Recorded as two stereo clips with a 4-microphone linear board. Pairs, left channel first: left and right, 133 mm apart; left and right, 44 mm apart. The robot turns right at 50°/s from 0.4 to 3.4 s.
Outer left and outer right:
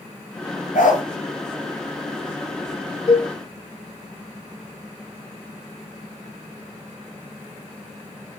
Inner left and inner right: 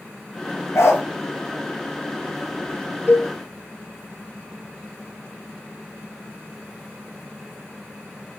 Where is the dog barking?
75° left (ahead or behind), 0.9 m; by 1.0 s 80° left, 0.9 m.